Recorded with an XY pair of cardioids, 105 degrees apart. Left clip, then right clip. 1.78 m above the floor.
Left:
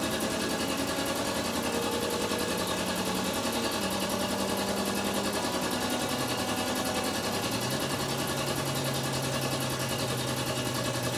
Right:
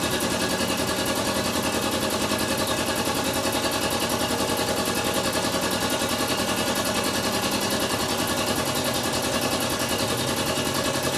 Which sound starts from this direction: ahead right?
A machine running, at 0.0 s.